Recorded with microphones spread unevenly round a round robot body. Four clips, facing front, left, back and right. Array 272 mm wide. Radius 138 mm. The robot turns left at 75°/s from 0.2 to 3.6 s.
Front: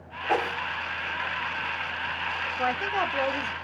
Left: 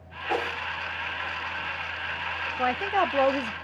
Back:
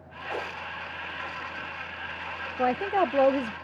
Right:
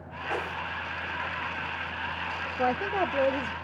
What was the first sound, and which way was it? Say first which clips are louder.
A whoosh: left 4 dB, front 8 dB; 20° left.